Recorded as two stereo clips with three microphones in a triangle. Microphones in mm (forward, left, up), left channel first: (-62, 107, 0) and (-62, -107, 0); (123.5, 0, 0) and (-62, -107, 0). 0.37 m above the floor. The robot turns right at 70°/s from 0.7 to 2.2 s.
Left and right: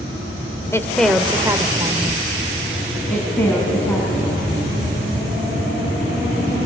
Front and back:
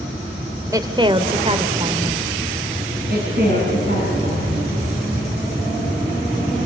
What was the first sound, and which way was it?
A woman speaking, 155° left.